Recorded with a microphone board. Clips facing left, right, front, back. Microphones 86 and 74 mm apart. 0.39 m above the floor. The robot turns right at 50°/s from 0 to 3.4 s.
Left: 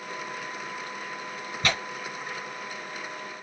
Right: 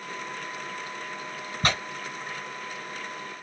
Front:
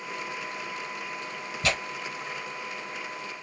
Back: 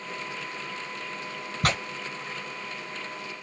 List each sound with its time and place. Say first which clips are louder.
1.6 s tearing paper: right 1 dB, back 2 dB; 155° right, 1.8 m; by 1.8 s 145° right, 1.8 m